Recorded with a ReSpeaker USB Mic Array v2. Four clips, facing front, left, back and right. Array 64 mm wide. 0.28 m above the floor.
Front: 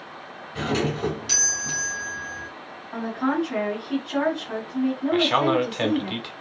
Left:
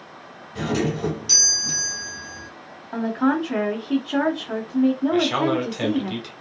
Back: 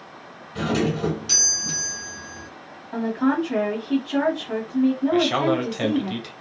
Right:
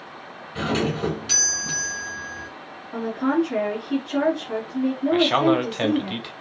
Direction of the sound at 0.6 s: 80° right.